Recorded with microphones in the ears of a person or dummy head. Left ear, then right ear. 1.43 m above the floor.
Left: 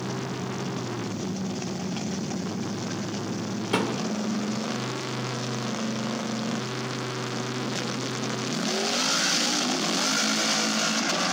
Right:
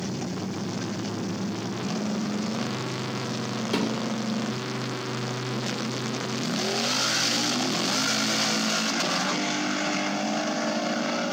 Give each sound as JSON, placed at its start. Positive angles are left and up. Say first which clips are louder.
{"t": 3.7, "sound": "a thud", "louder": "left 2 dB", "side_deg": 25, "distance_m": 2.5}